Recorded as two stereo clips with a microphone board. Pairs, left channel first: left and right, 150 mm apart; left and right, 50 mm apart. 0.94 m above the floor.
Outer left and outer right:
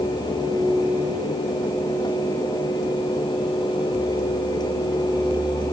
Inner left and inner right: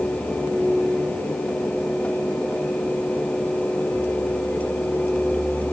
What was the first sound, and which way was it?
Only background noise.